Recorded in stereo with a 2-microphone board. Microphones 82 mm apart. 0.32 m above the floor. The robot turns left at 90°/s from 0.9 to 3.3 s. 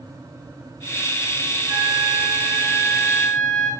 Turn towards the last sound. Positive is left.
turn(degrees=160)